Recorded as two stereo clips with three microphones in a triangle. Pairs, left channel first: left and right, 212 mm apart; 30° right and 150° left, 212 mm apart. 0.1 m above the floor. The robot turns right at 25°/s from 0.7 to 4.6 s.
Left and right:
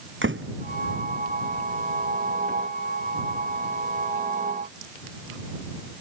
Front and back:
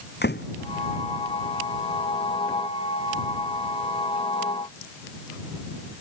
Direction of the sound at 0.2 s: 65° right.